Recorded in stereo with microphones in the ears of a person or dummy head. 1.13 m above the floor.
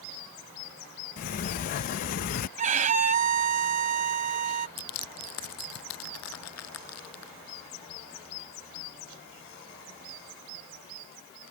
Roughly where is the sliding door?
Left.